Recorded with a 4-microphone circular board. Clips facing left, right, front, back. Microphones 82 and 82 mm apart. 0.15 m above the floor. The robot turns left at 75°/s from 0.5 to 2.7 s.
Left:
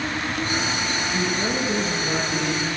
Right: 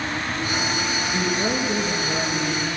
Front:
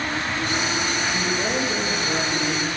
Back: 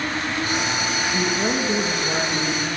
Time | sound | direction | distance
1.1 | a woman speaking | 165° right | 1.7 m